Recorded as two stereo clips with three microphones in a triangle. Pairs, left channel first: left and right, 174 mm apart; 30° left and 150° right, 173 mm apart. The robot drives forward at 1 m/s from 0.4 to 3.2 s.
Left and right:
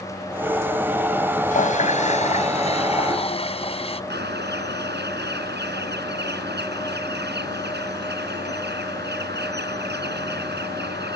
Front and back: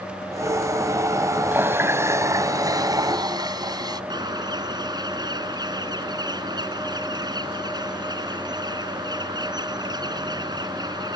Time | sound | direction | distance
1.5 | a running tap | 130° left | ?
4.1 | a bird | 85° right | ?